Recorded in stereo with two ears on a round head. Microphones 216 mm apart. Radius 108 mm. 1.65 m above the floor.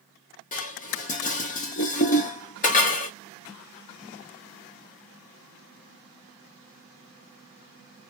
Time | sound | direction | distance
0.5 | dishes clattering | 35° left (ahead or behind) | 0.9 m